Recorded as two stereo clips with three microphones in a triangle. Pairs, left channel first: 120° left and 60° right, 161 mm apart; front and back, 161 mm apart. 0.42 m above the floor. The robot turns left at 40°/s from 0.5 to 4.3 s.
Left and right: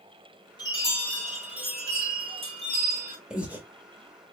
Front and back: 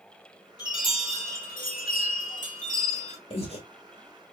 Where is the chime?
60° left, 2 m; by 3.2 s 40° right, 2 m.